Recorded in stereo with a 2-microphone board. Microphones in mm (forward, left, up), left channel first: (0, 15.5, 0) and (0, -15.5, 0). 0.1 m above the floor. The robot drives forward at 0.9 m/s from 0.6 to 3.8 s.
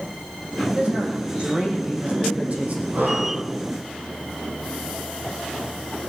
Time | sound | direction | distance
0.7 | a man speaking | 40° right (ahead or behind) | 6 m
2.9 | breathing | 70° right (ahead or behind) | 2.5 m